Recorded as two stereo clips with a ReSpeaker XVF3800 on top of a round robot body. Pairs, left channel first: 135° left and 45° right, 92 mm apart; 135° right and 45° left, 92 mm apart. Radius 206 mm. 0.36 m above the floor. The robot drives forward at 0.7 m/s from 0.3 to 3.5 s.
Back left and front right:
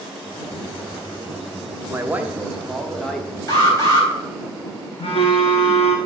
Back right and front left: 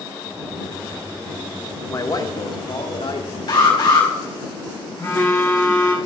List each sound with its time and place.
1.9 s a man speaking: 100° right, 1.2 m; by 3.4 s 145° right, 1.6 m
3.5 s an alarm: 170° right, 4 m
5.0 s a phone buzzing: 165° left, 1.5 m